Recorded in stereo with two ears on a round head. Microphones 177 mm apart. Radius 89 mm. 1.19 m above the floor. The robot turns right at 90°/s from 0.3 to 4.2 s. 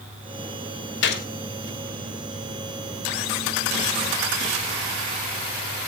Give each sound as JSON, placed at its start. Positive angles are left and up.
{"t": 1.0, "sound": "a gunshot", "side_deg": 65, "distance_m": 2.5}